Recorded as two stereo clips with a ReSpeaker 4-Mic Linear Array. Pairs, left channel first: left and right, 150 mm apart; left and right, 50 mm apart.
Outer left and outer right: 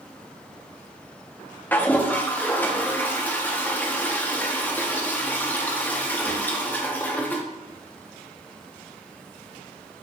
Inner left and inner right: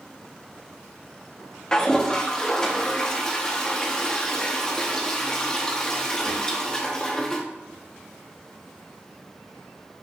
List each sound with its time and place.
1.7 s a toilet flushing: 10° left (ahead or behind), 0.7 m